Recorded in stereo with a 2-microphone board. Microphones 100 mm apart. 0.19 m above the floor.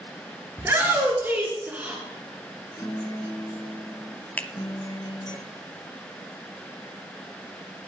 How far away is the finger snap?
About 0.9 m.